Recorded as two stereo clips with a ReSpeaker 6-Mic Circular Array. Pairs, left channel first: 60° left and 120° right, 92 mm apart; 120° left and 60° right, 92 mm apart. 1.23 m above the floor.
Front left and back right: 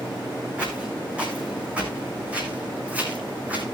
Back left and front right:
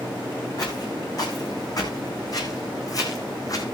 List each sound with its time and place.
0.6 s footsteps: 165° left, 6 m